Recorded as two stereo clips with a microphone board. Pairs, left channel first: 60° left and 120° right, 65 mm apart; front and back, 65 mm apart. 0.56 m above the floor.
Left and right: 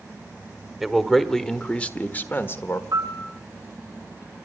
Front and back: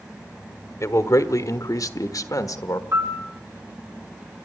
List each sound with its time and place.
0.8 s a man speaking: 35° right, 1.4 m; by 2.8 s 15° left, 1.3 m
2.9 s a piano: 145° right, 2 m